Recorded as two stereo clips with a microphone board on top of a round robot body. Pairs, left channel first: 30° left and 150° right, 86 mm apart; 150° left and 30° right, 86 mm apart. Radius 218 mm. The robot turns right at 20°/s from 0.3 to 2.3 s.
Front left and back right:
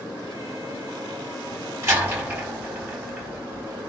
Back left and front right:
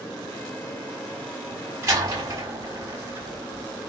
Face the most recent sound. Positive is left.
turn(degrees=-80)